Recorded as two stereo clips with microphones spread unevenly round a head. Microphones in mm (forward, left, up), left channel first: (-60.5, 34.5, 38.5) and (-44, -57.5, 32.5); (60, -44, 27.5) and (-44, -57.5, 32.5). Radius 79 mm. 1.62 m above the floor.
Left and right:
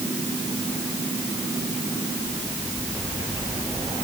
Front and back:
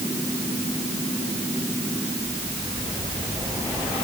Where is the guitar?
I don't hear a guitar.